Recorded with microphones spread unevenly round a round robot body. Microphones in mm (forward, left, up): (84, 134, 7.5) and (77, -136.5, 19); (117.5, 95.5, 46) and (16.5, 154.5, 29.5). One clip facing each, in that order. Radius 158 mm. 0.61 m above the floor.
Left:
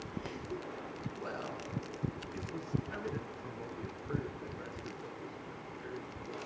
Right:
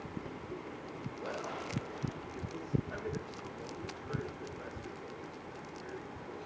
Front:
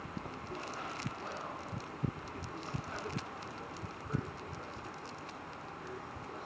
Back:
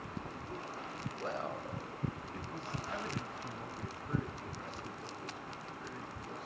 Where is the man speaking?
145° left, 2.5 m; by 6.5 s 150° left, 6.5 m.